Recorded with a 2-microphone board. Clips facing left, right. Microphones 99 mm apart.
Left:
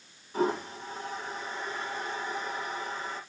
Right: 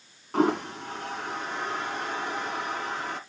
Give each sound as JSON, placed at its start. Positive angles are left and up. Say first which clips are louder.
{"t": 0.3, "sound": "a toilet flushing", "louder": "right 5 dB", "side_deg": -75, "distance_m": 1.6}